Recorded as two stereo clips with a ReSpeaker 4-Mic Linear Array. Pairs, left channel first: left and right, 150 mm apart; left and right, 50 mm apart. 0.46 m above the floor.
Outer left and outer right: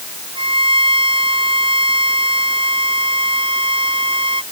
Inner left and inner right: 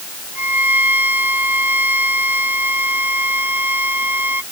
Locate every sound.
0.3 s a violin: 35° right (ahead or behind)